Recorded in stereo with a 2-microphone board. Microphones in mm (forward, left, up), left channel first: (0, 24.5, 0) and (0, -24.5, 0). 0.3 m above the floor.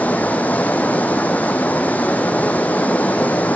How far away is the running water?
About 1.0 m.